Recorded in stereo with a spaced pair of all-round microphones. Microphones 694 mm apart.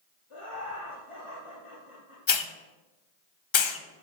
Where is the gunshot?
No gunshot in this recording.